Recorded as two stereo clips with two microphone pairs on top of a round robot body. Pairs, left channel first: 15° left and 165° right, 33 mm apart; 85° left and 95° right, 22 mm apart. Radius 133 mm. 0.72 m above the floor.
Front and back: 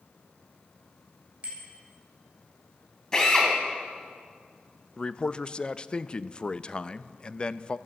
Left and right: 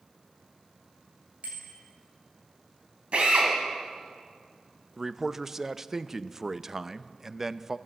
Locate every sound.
1.4 s a bicycle bell: 105° right, 4 m
3.1 s a drill: 60° right, 2.5 m
5.0 s a man speaking: 20° right, 0.6 m